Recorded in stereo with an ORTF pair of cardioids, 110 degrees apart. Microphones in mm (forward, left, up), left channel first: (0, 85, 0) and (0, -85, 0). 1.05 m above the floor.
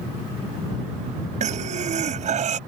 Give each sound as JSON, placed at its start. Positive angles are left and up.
{"t": 1.4, "sound": "breathing", "azimuth_deg": -45}